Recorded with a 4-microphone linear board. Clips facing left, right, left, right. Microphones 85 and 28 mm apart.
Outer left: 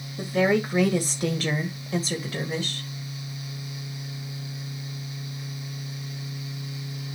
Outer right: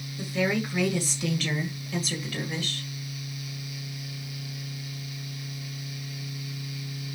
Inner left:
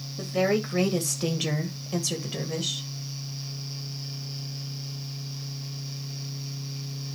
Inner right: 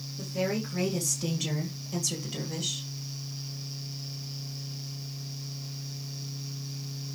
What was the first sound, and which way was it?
A woman speaking, 50° left (ahead or behind).